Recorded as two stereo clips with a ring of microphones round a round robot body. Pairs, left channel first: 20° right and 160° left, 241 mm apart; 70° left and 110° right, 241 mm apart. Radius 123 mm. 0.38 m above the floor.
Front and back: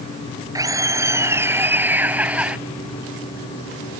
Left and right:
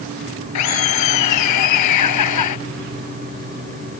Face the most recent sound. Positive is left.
turn(degrees=70)